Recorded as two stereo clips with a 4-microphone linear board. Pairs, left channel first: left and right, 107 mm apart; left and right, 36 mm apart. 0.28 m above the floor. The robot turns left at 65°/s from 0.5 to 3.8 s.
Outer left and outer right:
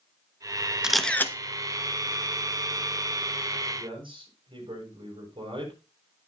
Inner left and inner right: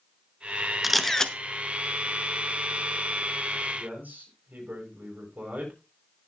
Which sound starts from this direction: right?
A man speaking, at 3.8 s.